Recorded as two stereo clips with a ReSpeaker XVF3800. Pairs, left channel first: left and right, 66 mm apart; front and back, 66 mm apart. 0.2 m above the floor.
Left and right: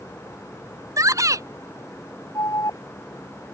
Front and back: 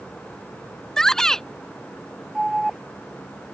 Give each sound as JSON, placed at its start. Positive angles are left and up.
{"t": 1.0, "sound": "a shout", "azimuth_deg": -80}
{"t": 2.4, "sound": "an alarm", "azimuth_deg": 95}